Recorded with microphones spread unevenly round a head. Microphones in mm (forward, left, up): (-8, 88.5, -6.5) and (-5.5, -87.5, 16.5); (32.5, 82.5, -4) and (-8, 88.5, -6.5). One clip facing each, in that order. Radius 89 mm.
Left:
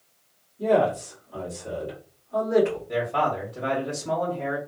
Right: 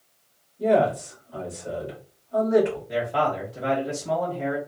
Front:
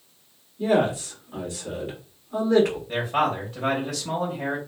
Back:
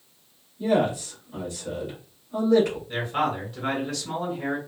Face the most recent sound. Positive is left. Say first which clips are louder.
# right 1 dB, front 2 dB
turn(degrees=-5)